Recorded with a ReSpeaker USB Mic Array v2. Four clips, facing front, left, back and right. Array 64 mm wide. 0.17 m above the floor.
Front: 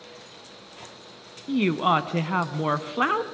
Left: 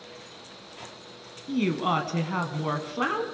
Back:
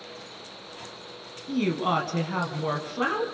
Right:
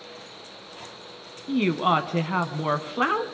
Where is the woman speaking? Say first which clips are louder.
Right 4 dB, front 4 dB; 35° right, 1.1 m.